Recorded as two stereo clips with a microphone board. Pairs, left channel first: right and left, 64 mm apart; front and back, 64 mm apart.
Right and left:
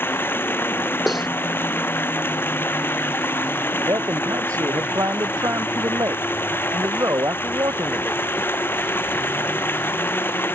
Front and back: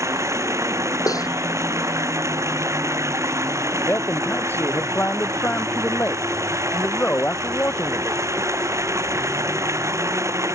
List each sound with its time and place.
0.0 s running water: 145° right
1.1 s cutlery clinking: 5° left
3.8 s a man speaking: 60° left